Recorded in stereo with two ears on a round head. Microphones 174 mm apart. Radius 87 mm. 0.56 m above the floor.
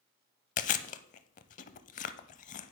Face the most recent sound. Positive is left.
turn(degrees=40)  # may be behind; listen again after turning